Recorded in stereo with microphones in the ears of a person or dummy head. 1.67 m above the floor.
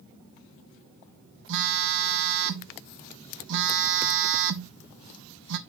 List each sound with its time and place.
1.5 s a phone buzzing: 65° right (ahead or behind), 0.7 m